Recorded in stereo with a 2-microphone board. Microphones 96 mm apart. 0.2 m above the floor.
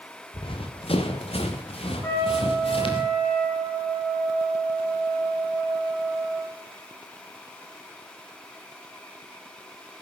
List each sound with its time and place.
0.3 s running footsteps: 60° left (ahead or behind), 2.5 m; by 3.0 s 70° left (ahead or behind), 4 m
2.0 s a trumpet: 30° left (ahead or behind), 7 m